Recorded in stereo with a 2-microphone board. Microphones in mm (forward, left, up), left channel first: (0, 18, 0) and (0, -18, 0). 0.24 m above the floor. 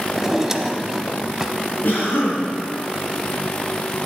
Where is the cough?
55° left (ahead or behind), 3.5 m.